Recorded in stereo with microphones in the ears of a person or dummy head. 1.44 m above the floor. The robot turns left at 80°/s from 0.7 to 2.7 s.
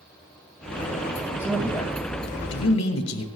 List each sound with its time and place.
1.4 s a man speaking: 165° right, 2.5 m; by 3.2 s 90° left, 2.5 m